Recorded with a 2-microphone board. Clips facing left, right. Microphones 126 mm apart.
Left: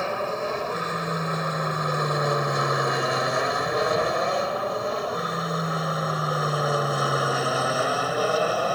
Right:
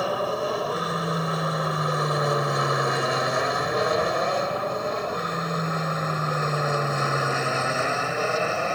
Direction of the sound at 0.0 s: 10° right (ahead or behind).